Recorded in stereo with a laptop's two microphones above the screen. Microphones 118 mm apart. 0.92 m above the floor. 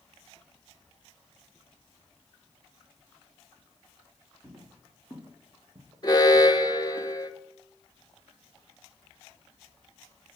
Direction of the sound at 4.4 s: 20° right (ahead or behind).